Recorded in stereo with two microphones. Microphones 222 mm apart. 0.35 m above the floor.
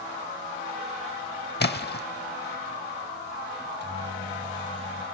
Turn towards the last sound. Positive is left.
turn(degrees=-55)  # may be behind; listen again after turning